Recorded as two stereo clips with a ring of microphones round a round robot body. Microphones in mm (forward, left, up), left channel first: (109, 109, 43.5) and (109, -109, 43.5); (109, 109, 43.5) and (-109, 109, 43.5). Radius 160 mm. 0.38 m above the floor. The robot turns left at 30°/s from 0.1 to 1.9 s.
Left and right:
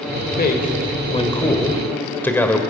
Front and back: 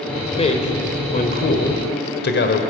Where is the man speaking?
55° left, 1.6 m; by 2.6 s 10° left, 1.6 m.